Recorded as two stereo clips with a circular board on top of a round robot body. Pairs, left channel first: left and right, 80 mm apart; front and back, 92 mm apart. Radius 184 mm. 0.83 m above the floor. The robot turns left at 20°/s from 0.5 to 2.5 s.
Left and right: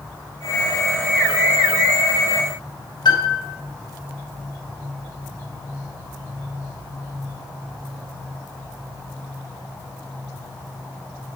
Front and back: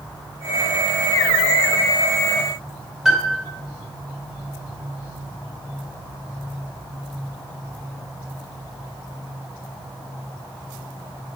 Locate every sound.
3.0 s a piano: 95° left, 2.5 m